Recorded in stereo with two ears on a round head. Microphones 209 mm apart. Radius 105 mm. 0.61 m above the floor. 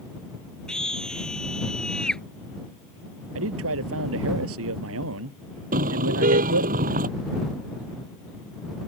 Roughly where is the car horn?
Right.